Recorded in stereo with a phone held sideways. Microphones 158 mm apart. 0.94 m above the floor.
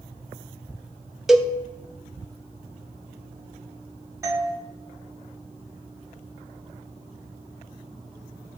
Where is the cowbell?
5° right (ahead or behind), 0.5 m.